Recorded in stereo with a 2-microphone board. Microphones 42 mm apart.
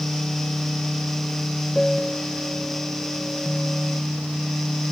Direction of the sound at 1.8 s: 5° left (ahead or behind).